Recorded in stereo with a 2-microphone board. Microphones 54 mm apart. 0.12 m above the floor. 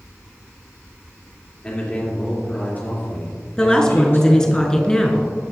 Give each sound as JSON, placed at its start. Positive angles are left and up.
{"t": 1.6, "sound": "a man speaking", "side_deg": 20, "distance_m": 3.0}
{"t": 3.6, "sound": "a woman speaking", "side_deg": 15, "distance_m": 1.3}